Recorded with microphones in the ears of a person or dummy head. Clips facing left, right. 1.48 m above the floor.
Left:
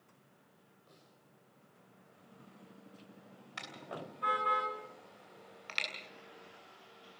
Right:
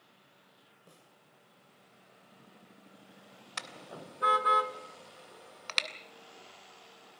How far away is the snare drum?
About 2 m.